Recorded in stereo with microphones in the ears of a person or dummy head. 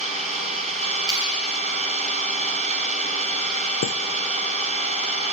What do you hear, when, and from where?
0.0 s an engine running: 35° right (ahead or behind), 5.5 m
1.1 s a clap: 20° right (ahead or behind), 9 m
3.8 s a chime: 65° left (ahead or behind), 0.6 m